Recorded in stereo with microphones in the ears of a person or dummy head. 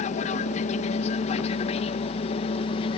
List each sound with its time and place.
0.0 s an aircraft: 45° left (ahead or behind); by 3.0 s 35° left (ahead or behind)